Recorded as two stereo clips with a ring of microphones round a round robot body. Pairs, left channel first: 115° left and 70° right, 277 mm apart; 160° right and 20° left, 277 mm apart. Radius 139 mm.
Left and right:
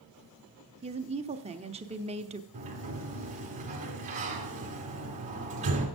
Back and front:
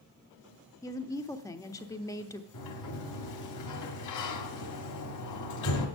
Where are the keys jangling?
No keys jangling in this recording.